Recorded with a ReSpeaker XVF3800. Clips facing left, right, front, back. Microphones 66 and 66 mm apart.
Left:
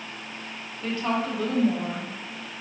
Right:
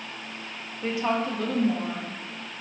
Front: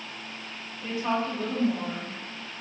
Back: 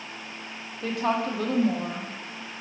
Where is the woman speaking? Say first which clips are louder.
Right 1 dB, back 2 dB; 155° right, 0.7 m; by 2.6 s 125° left, 0.8 m.